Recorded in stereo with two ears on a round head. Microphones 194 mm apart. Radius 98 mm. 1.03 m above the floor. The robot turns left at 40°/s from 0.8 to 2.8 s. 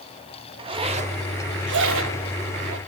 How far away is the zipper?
About 1.5 m.